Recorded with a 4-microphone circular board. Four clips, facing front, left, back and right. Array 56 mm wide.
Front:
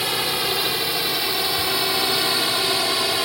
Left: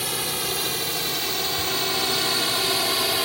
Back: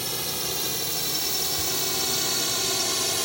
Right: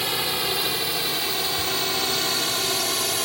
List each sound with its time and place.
0.0 s a drone: 15° right; by 3.2 s 25° left